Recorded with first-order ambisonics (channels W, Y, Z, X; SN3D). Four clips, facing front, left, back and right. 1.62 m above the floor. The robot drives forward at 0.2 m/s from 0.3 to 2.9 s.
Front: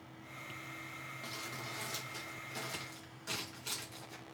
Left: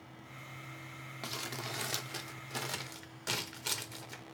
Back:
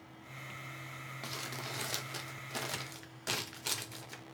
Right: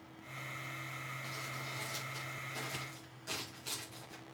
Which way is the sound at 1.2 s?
115° left.